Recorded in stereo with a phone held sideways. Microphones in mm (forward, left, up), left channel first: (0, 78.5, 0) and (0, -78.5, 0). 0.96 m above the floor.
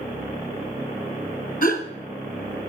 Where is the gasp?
60° left (ahead or behind), 2 m.